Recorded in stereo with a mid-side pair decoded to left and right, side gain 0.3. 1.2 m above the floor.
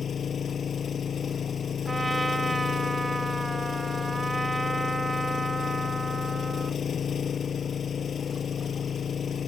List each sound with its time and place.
0.0 s an engine running: 65° left
1.9 s a trumpet: 25° right